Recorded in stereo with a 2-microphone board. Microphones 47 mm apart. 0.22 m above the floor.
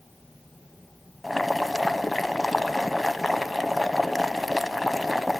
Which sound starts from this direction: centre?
Boiling, at 1.2 s.